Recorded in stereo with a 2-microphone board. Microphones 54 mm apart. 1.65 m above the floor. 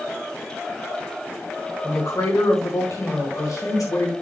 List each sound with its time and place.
1.8 s a woman speaking: 75° left (ahead or behind), 3 m